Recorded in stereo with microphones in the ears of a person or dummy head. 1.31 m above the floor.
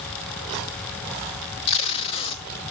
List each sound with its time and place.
1.7 s tape being pulled: 30° left (ahead or behind), 0.6 m